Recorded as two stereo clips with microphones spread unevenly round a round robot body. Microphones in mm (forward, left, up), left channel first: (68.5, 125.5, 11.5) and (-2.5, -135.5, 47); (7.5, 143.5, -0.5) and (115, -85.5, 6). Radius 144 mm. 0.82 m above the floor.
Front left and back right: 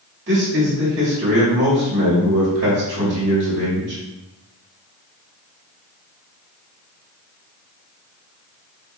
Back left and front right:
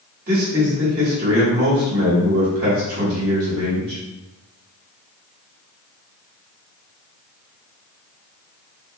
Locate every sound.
0.3 s a man speaking: 85° right, 1.1 m